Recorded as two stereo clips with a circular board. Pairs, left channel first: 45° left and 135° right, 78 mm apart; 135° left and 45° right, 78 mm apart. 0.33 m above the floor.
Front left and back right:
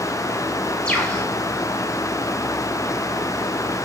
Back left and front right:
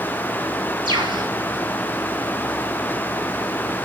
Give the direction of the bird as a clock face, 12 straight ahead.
1 o'clock.